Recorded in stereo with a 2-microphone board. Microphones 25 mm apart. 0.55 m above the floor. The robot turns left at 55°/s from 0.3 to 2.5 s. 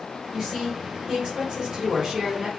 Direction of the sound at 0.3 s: 30° right.